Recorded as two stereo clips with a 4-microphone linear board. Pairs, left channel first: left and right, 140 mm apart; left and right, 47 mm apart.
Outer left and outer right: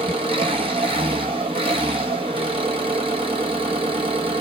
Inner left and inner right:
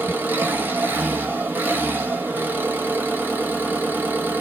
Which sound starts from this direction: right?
An engine running, at 0.0 s.